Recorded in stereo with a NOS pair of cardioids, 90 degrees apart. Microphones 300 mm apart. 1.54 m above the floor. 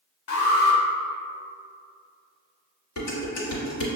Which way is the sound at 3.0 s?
65° left.